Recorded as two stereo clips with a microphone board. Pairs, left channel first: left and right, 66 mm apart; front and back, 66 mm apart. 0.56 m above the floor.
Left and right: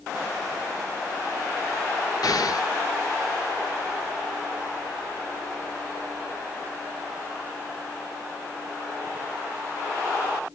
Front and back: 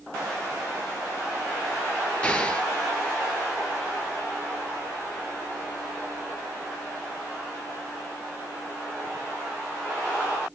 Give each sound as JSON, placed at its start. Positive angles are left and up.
{"t": 2.2, "sound": "an explosion", "azimuth_deg": 75, "distance_m": 1.5}